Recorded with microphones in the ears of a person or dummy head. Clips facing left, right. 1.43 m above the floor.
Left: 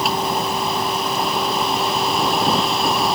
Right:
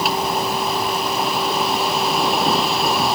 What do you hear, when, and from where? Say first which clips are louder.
0.0 s a vehicle: even; centre (ahead or behind)